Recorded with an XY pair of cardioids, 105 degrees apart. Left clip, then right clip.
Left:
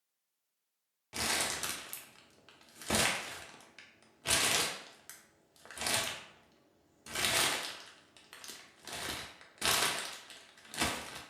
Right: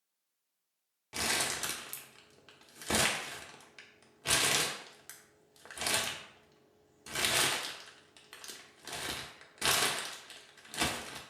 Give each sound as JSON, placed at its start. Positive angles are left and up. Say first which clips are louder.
{"t": 1.1, "sound": "crumpling", "louder": "right 1 dB", "azimuth_deg": 0, "distance_m": 0.5}